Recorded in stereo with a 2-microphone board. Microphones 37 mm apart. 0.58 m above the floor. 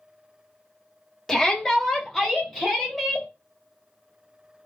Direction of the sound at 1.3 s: 15° left (ahead or behind).